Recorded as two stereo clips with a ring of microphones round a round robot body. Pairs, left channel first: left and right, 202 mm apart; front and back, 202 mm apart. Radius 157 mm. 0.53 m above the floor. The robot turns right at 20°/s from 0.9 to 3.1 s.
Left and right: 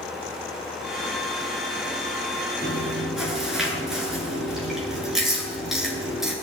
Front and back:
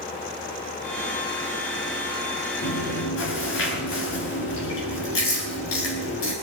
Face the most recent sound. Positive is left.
turn(degrees=0)